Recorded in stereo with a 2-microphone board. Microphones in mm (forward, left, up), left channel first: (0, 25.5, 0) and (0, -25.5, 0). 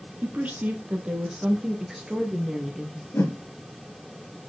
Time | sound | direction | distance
0.2 | a woman speaking | 35° right (ahead or behind) | 1.7 m
3.1 | a whoosh | 60° left (ahead or behind) | 3.5 m